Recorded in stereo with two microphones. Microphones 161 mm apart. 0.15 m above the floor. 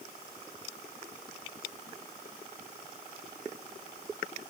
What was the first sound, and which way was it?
Only background noise.